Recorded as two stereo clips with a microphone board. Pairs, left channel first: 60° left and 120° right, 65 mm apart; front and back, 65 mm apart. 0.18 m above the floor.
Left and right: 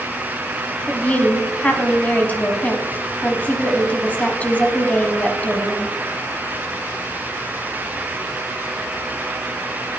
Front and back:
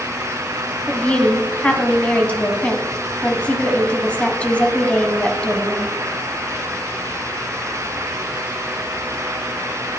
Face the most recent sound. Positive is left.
turn(degrees=40)